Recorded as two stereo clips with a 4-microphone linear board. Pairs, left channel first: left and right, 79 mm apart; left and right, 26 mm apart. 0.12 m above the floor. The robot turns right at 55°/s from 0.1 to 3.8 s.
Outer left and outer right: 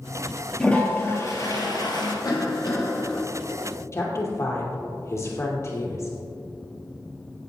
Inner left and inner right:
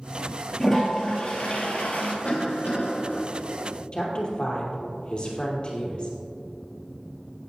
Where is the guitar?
I don't hear a guitar.